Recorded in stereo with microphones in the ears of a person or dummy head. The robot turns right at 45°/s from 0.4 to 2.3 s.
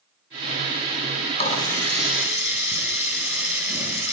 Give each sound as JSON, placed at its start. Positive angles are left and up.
{"t": 1.4, "sound": "a running tap", "azimuth_deg": 145, "distance_m": 8.0}